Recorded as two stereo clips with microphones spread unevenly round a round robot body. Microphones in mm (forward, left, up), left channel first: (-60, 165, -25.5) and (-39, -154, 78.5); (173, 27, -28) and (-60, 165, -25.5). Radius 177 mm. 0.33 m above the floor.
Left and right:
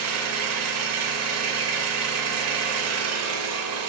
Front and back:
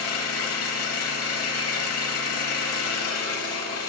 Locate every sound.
0.0 s an engine running: 35° right, 1.1 m